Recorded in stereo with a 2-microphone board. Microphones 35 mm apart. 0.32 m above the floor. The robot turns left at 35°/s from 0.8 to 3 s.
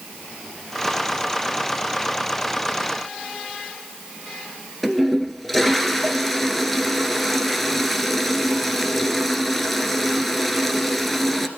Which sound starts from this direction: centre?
A toilet flushing, at 4.8 s.